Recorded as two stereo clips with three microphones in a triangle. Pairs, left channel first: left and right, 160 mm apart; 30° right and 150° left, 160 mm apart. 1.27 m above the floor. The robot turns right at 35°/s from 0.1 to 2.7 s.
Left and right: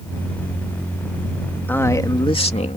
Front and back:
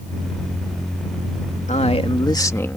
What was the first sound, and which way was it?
A man speaking, 10° left.